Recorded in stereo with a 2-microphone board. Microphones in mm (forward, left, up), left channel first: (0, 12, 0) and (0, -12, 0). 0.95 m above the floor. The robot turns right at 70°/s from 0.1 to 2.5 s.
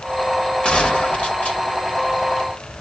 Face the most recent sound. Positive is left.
turn(degrees=175)